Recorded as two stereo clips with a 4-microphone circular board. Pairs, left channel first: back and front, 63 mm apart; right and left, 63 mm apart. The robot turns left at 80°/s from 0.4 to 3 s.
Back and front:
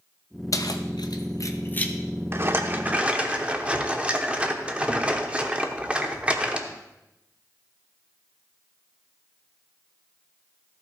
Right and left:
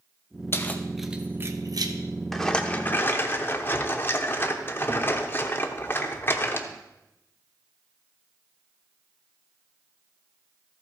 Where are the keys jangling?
140° right, 0.8 m; by 1.9 s 105° left, 0.8 m.